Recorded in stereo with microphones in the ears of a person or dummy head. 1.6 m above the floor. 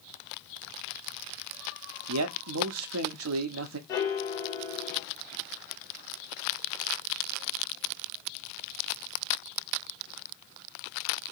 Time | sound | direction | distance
2.1 | a man speaking | 80° right | 0.6 m
3.9 | a piano | 20° left (ahead or behind) | 1.5 m